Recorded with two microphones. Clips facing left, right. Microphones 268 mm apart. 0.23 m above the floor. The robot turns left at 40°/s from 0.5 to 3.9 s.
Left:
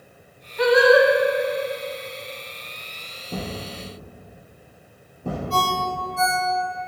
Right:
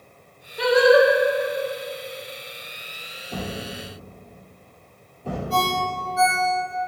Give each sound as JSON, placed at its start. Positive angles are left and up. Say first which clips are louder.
{"t": 0.6, "sound": "singing", "louder": "even", "side_deg": -35, "distance_m": 0.5}
{"t": 3.3, "sound": "a thud", "louder": "even", "side_deg": 25, "distance_m": 1.8}
{"t": 5.5, "sound": "a ringtone", "louder": "right 1 dB", "side_deg": 55, "distance_m": 1.2}